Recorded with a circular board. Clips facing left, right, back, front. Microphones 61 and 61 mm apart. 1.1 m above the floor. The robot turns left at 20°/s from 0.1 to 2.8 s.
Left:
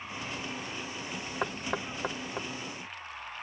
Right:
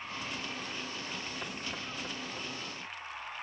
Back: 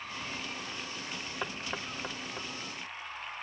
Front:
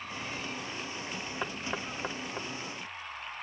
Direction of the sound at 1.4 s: 85° left.